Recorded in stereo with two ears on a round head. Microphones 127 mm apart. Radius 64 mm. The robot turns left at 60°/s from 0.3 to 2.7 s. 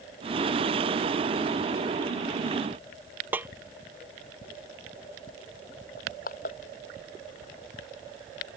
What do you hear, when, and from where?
3.3 s a snare drum: 10° right (ahead or behind)
6.0 s crushing: 60° left (ahead or behind)